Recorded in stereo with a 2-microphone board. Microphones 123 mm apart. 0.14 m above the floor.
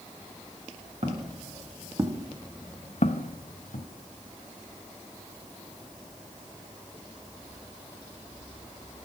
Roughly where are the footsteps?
Right.